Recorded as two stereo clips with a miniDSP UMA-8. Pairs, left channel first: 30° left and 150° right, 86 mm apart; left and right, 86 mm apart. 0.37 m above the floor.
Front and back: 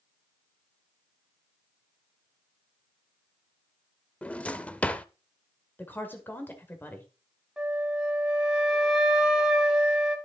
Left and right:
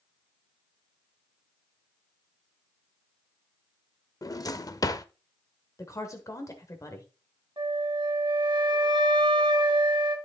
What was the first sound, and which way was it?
A drawer, 95° left.